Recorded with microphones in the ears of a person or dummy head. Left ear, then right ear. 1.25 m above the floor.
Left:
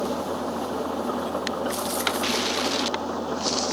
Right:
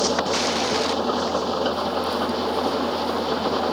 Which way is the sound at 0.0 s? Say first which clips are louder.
Right 6 dB; 90° right.